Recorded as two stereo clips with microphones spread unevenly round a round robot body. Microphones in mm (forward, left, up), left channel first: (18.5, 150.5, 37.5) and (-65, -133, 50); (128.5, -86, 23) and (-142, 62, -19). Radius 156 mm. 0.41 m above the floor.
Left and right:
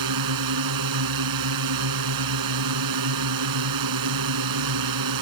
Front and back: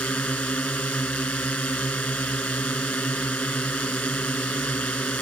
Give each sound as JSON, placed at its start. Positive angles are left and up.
{"t": 0.0, "sound": "a drone", "azimuth_deg": -115}